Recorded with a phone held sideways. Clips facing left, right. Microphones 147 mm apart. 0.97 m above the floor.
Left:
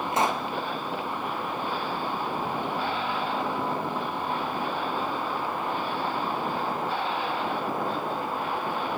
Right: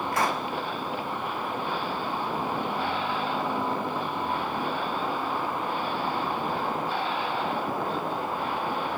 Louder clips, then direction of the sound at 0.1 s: Left 2 dB; 20° left (ahead or behind).